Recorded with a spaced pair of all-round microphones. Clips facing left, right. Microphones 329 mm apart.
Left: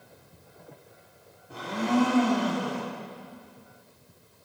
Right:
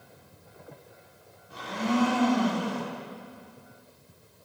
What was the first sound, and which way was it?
A blender, 65° left (ahead or behind).